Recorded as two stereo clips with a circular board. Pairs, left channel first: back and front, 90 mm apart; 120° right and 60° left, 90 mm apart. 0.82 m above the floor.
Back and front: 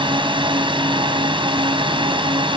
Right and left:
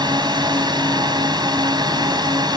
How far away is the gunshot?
No gunshot in this recording.